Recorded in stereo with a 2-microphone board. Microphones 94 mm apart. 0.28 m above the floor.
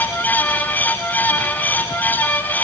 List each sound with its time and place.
Only background noise.